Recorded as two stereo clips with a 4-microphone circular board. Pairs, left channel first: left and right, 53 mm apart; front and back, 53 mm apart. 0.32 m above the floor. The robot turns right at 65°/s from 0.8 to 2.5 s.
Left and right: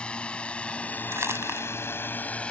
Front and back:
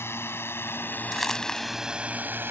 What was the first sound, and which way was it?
A drone, 25° left.